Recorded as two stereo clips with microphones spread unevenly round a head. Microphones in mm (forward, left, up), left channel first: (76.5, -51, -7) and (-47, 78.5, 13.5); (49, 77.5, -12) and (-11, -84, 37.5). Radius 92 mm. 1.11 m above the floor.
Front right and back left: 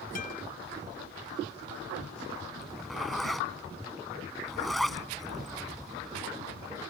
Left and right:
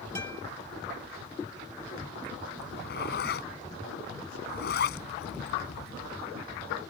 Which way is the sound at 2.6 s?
45° left.